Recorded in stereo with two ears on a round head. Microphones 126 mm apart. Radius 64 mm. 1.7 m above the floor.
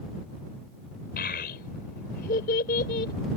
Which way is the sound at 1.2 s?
80° left.